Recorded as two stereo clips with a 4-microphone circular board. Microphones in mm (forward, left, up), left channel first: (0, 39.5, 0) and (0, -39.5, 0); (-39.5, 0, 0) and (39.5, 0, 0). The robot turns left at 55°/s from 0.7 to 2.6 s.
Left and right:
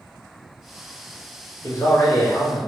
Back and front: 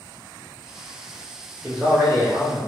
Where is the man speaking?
65° left, 1.2 m; by 2.6 s 10° left, 1.2 m.